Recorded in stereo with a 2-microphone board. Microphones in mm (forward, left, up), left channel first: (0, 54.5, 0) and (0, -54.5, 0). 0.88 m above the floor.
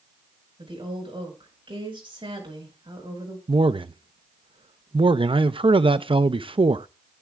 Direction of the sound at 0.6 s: 55° right (ahead or behind).